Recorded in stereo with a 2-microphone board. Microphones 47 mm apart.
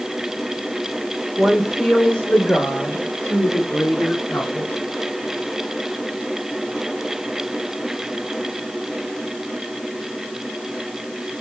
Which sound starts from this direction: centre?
A woman speaking, at 1.4 s.